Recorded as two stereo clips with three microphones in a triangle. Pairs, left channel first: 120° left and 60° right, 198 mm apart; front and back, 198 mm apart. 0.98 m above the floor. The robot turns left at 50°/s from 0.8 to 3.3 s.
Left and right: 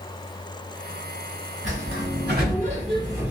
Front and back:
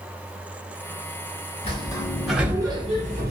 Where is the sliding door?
60° right, 1.8 m; by 3.3 s 140° right, 1.8 m.